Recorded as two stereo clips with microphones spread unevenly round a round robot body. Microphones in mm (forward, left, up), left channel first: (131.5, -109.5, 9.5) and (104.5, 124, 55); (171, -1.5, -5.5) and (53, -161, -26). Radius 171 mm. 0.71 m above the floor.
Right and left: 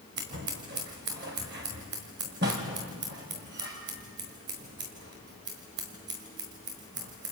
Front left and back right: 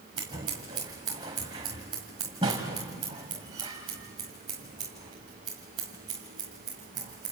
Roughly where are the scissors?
Behind.